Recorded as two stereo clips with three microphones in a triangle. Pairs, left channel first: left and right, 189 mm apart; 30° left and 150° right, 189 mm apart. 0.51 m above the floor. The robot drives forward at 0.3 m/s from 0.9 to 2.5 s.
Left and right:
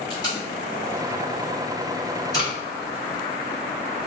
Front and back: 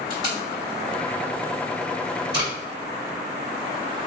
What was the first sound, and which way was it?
Tape being pulled, 155° left.